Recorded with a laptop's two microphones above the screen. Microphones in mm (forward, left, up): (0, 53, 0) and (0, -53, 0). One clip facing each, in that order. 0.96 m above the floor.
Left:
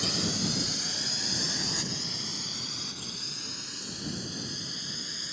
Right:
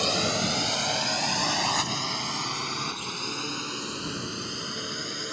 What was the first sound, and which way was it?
A drone, 80° right.